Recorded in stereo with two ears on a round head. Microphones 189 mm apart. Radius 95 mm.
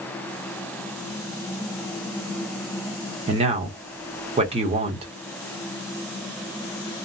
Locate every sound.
3.3 s a man speaking: 30° right (ahead or behind), 1.1 m